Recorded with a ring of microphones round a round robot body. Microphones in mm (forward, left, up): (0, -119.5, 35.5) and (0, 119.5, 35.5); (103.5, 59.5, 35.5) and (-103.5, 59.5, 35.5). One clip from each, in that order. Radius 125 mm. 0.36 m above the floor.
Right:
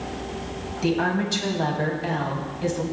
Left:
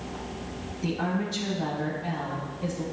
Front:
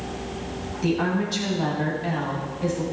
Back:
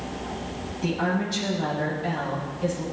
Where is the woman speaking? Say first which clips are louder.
Right 7 dB, front 2 dB; 80° right, 3 m.